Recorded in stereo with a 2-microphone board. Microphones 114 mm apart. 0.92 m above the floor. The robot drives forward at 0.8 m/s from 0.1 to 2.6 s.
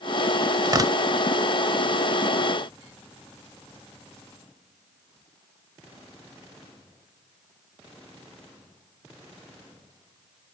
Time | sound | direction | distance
0.7 | tearing paper | 35° right (ahead or behind) | ?